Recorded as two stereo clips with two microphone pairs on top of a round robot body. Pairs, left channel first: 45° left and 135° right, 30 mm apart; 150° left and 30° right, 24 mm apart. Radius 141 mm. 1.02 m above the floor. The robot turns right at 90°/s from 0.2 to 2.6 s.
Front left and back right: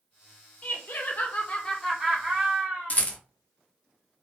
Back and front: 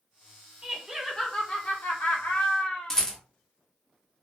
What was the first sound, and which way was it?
Laughter, 15° left.